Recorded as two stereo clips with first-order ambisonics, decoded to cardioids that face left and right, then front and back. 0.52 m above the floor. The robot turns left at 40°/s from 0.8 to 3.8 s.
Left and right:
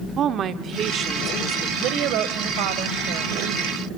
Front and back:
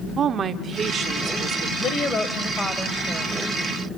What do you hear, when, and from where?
0.2 s a woman speaking: 130° right, 1.1 m; by 1.7 s 165° right, 1.1 m
1.8 s a woman speaking: 55° right, 1.9 m; by 3.3 s 110° right, 1.9 m